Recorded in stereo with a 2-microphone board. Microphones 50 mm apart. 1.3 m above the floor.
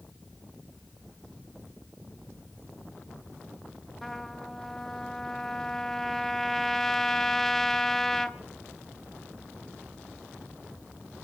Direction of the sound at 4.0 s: 5° left (ahead or behind).